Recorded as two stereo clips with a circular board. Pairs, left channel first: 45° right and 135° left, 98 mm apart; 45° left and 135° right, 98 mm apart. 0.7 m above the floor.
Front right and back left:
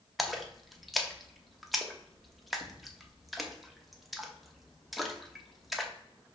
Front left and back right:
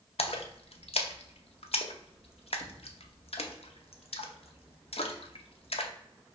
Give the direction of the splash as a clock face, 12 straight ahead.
10 o'clock.